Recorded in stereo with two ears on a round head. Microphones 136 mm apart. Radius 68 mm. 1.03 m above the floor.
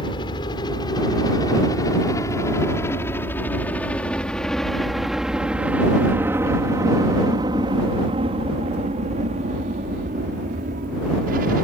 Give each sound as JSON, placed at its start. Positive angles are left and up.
{"t": 0.0, "sound": "a helicopter", "side_deg": 30}